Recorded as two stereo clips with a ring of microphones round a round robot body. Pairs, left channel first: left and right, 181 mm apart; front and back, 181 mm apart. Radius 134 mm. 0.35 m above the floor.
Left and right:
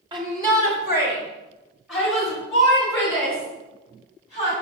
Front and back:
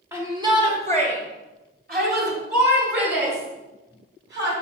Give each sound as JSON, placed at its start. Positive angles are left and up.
{"t": 0.1, "sound": "a shout", "azimuth_deg": -120, "distance_m": 1.5}